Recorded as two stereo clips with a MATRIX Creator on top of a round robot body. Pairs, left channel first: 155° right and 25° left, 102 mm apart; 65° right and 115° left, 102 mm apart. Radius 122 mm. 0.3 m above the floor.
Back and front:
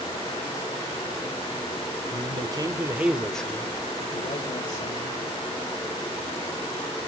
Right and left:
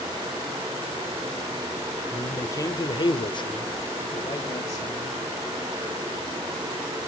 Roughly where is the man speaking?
Ahead.